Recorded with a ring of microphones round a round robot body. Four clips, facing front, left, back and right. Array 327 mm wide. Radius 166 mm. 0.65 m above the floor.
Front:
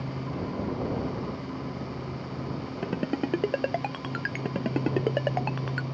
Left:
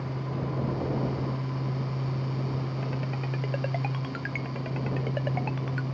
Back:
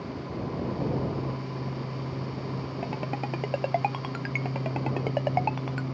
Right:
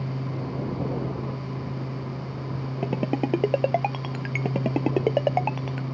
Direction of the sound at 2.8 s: 65° right.